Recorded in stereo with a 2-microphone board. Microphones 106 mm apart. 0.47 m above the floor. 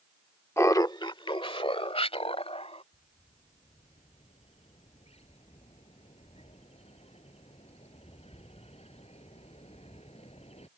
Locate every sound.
0.6 s laughter: 25° left (ahead or behind); by 2.8 s 70° left (ahead or behind)
2.9 s a bird: 75° left (ahead or behind)